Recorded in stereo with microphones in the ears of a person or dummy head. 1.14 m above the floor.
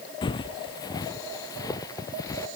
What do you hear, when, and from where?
0.2 s footsteps: 25° left (ahead or behind); by 2.5 s 20° left (ahead or behind)